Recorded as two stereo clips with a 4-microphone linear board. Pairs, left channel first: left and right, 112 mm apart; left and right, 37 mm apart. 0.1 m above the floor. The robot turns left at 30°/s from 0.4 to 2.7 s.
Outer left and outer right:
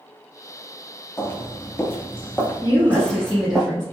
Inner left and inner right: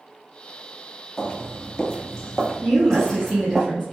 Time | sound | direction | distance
1.2 | footsteps | 20° left (ahead or behind) | 0.8 m
2.6 | a woman speaking | centre (ahead or behind) | 1.6 m